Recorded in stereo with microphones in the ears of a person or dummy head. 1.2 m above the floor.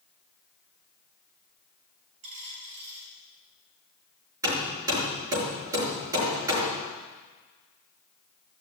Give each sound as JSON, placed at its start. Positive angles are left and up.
{"t": 2.2, "sound": "a dropped coin", "side_deg": -25, "distance_m": 4.0}
{"t": 4.4, "sound": "hammering", "side_deg": -10, "distance_m": 5.5}